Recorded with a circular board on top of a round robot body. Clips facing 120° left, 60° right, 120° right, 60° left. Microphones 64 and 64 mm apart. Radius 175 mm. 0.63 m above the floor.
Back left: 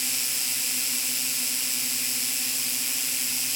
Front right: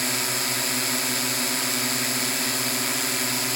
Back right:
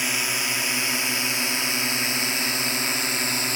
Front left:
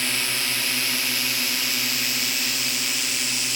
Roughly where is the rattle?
No rattle in this recording.